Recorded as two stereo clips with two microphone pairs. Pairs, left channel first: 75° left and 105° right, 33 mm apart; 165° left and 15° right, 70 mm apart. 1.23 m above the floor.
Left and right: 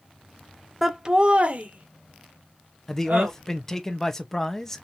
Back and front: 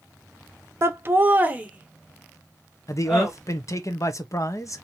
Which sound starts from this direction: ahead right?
Laughter, at 0.8 s.